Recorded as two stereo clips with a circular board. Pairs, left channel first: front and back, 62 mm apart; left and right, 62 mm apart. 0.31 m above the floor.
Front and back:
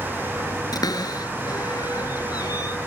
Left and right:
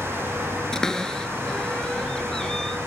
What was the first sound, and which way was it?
A cupboard door, 10° left.